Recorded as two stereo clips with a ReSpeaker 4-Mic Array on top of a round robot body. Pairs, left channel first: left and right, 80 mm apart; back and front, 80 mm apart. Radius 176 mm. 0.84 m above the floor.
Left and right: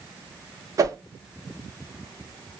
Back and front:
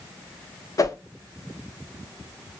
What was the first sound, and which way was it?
A whoosh, 135° right.